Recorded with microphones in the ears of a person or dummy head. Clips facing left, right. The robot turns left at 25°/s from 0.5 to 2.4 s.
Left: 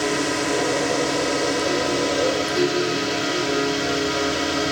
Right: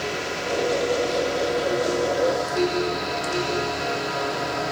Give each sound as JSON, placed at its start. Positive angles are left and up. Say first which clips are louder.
{"t": 0.0, "sound": "a drone", "louder": "left 6 dB", "azimuth_deg": 100}